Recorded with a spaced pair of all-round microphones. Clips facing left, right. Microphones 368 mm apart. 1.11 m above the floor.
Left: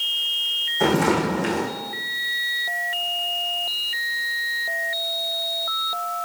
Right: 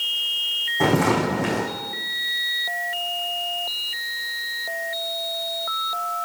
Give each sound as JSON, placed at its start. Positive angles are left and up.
{"t": 0.8, "sound": "footsteps", "side_deg": -65, "distance_m": 4.0}